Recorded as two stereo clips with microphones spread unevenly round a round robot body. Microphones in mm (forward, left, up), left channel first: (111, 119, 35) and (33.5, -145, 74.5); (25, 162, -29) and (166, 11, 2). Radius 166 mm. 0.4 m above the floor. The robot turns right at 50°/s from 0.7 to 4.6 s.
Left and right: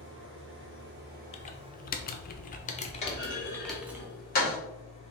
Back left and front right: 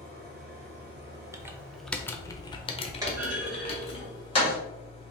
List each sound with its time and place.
0.0 s an engine running: 85° right, 1.0 m; by 5.1 s 110° left, 1.0 m
1.3 s typing on a keyboard: 30° left, 0.5 m; by 4.0 s 165° left, 0.5 m
3.0 s a clunk: 30° left, 1.9 m; by 4.6 s 105° left, 1.9 m